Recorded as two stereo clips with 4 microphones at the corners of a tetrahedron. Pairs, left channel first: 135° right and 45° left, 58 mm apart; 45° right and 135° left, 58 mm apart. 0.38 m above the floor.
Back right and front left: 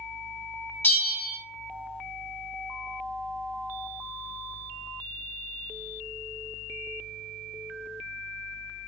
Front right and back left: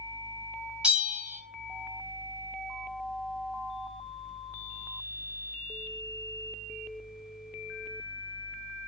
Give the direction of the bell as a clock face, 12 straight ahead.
6 o'clock.